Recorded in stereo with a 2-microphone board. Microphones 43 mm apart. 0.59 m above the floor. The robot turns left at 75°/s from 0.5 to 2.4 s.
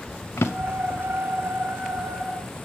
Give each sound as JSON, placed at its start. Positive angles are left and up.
{"t": 0.4, "sound": "a drawer", "side_deg": 80, "distance_m": 0.9}